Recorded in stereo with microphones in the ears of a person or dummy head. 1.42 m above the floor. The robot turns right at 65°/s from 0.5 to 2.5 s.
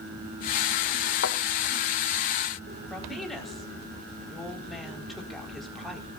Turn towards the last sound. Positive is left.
turn(degrees=0)  # may be behind; listen again after turning